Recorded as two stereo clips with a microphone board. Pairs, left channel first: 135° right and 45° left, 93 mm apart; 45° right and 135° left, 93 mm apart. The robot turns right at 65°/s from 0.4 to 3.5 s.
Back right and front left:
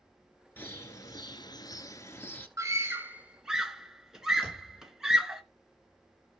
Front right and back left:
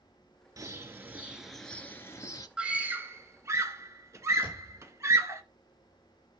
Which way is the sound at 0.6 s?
165° left.